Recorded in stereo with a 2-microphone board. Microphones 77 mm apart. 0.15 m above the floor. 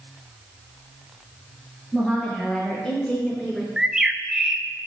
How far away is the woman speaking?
About 4 m.